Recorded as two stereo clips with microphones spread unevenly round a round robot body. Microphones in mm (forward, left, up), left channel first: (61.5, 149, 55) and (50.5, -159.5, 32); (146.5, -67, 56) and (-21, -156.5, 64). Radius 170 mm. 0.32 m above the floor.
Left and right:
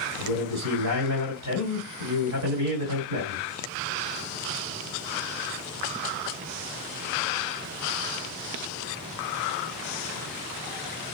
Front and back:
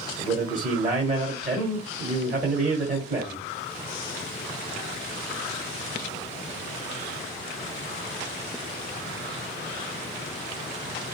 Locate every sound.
0.2 s a man speaking: 110° right, 1.9 m